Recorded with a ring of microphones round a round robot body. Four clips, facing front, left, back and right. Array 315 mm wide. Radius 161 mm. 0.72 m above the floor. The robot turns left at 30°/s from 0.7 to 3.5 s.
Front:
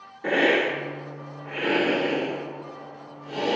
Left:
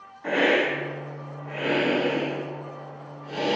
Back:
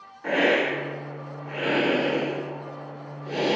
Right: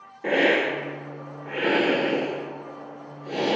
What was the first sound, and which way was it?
A hiss, 55° right.